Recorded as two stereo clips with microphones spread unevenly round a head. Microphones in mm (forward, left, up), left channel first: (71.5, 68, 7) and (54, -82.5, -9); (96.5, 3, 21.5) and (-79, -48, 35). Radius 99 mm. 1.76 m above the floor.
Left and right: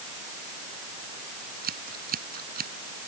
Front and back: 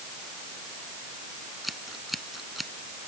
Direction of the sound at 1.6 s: 75° right.